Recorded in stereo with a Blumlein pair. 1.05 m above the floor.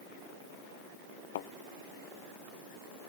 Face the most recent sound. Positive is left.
turn(degrees=55)